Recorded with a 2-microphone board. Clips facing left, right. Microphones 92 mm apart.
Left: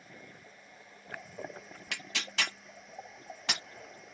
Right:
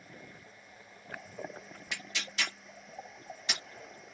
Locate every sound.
1.9 s tearing paper: 75° left (ahead or behind), 1.0 m